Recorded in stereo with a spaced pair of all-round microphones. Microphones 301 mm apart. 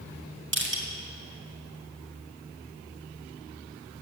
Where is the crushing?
40° right (ahead or behind), 1.8 m.